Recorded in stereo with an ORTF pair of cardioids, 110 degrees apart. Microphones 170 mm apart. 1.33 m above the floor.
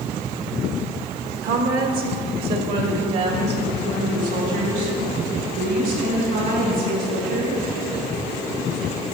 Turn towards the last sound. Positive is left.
turn(degrees=-75)